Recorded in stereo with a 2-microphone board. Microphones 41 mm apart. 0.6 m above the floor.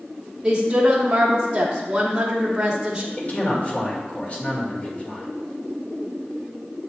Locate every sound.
0.4 s a woman speaking: 15° right (ahead or behind), 1.1 m
3.2 s a man speaking: 35° left (ahead or behind), 1.8 m